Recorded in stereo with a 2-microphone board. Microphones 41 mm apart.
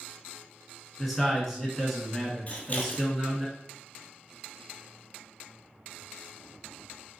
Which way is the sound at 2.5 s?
40° left (ahead or behind).